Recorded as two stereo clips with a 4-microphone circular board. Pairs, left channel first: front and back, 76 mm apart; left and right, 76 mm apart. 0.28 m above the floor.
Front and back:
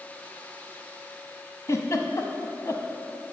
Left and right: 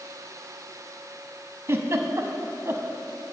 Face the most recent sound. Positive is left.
turn(degrees=-40)